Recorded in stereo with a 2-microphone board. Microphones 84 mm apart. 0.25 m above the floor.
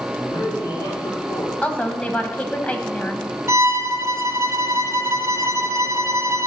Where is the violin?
35° right (ahead or behind), 0.5 m.